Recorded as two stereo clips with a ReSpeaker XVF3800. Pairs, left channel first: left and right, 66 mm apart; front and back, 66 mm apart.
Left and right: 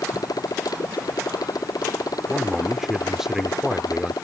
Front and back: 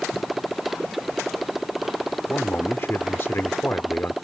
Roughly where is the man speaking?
Ahead.